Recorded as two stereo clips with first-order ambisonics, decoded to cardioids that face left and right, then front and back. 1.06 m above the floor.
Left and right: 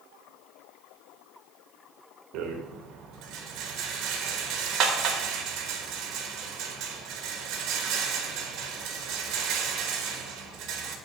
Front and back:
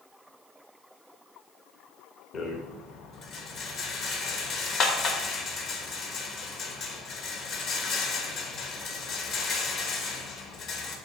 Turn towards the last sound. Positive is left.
turn(degrees=-55)